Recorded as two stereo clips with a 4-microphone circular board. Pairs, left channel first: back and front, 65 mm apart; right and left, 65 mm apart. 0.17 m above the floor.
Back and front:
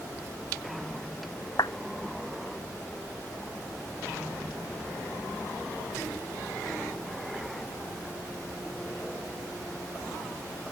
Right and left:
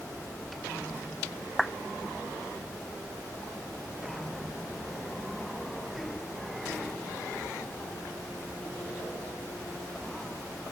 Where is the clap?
Straight behind.